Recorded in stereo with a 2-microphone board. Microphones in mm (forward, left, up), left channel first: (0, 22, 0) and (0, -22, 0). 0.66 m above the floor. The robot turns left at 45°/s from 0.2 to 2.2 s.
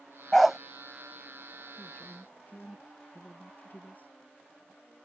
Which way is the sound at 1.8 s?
20° left (ahead or behind).